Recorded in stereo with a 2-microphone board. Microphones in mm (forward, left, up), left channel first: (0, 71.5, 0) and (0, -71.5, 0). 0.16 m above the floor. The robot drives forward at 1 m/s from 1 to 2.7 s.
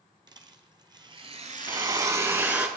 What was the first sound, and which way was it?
A rattle, 30° right (ahead or behind).